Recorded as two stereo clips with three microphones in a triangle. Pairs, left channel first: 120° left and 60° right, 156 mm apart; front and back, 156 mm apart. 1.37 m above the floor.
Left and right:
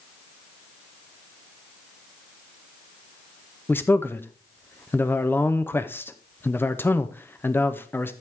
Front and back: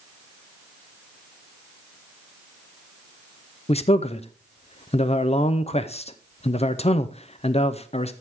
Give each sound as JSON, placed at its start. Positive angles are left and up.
{"t": 3.7, "sound": "a man speaking", "azimuth_deg": 45, "distance_m": 0.6}